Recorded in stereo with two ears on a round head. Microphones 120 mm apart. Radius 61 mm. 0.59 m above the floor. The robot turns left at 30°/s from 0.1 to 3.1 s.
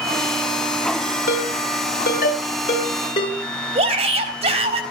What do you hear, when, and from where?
1.3 s a ringtone: 85° left, 6 m; by 3.4 s 35° left (ahead or behind), 6 m
3.8 s a shout: 45° right (ahead or behind), 3.5 m